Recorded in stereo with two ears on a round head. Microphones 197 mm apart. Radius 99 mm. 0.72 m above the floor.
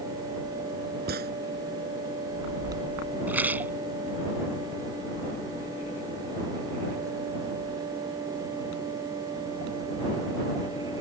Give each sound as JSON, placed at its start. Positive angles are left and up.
{"t": 1.1, "sound": "a gunshot", "side_deg": -45}
{"t": 3.3, "sound": "a rattle", "side_deg": -10}